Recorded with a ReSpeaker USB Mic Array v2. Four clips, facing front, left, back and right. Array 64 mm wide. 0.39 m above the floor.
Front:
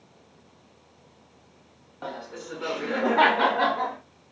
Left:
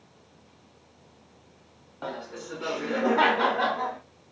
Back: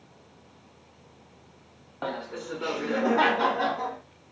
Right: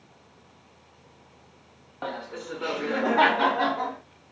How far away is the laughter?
About 0.9 m.